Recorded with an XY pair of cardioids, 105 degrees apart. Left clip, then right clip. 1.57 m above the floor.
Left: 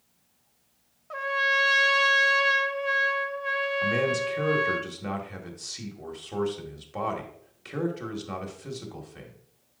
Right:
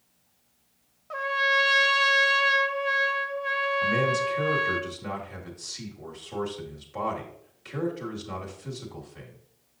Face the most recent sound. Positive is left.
turn(degrees=25)